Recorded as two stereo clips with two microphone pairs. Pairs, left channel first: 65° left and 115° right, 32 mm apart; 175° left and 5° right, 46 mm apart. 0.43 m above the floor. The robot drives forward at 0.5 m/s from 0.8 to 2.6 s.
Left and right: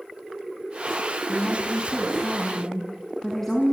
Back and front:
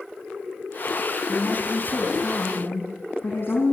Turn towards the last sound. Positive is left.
turn(degrees=140)